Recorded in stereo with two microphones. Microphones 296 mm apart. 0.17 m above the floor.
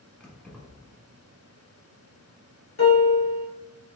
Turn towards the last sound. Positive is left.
turn(degrees=55)  # may be behind; listen again after turning